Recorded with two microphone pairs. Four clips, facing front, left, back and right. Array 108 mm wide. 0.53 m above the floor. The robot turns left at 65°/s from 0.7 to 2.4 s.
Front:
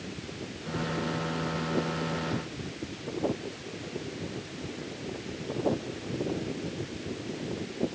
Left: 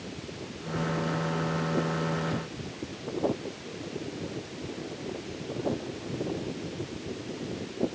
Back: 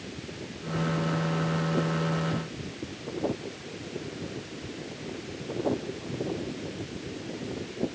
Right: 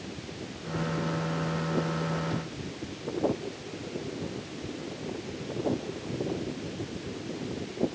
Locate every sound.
Only background noise.